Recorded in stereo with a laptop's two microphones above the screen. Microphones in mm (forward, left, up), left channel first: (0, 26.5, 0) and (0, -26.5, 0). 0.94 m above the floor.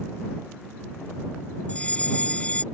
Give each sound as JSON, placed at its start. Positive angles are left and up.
{"t": 1.7, "sound": "a fire alarm", "side_deg": 25}